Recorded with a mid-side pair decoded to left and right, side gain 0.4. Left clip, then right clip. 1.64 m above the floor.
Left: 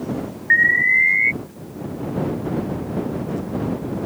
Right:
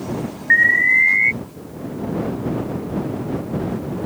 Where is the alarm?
5° right.